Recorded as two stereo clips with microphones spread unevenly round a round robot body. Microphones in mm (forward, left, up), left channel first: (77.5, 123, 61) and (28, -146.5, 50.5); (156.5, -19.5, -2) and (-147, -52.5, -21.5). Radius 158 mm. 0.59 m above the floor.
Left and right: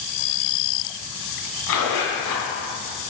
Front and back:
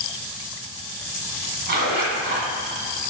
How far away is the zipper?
About 1.9 m.